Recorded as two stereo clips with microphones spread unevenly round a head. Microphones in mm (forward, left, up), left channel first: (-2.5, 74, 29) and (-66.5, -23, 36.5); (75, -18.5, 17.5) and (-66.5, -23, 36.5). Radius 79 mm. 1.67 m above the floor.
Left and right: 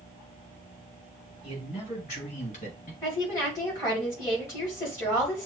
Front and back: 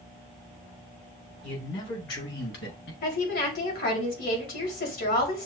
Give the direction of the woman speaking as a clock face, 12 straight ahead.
12 o'clock.